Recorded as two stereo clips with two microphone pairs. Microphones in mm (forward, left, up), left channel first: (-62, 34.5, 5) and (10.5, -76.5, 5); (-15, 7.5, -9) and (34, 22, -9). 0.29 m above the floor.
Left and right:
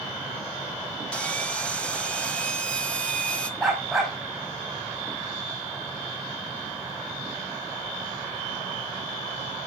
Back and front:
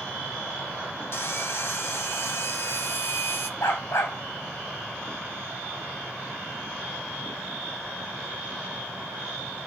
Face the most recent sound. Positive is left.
turn(degrees=-145)